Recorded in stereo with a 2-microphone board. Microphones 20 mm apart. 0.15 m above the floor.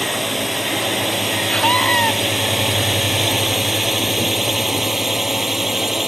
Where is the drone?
5° right (ahead or behind); by 6.1 s 20° right (ahead or behind).